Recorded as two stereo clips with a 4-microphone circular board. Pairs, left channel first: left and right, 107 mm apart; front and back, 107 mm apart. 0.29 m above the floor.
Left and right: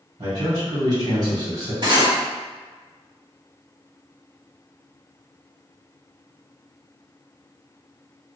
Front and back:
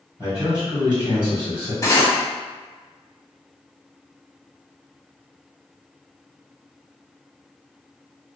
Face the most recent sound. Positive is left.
turn(degrees=-55)